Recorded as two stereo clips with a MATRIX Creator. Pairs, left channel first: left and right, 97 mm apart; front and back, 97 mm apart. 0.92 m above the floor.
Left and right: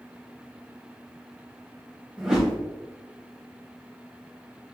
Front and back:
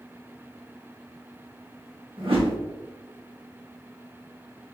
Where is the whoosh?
170° right, 1.4 m.